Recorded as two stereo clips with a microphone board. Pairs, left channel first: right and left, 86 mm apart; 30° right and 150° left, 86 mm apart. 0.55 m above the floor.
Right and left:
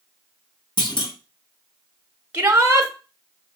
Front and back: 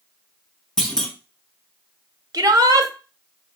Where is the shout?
150° left, 0.9 m.